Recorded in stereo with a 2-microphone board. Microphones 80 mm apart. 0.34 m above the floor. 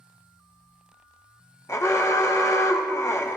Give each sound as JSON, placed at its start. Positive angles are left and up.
{"t": 1.7, "sound": "an alarm", "side_deg": 40, "distance_m": 1.1}